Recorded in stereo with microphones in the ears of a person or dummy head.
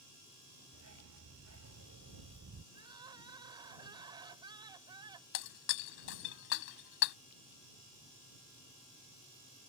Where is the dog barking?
85° right; by 2.6 s 75° right (ahead or behind).